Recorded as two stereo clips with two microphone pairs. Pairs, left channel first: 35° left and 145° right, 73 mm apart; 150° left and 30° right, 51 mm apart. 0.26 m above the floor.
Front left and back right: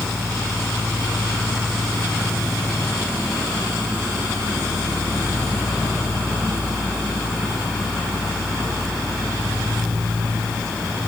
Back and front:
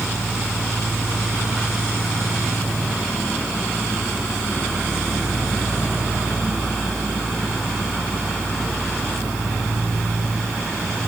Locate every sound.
Only background noise.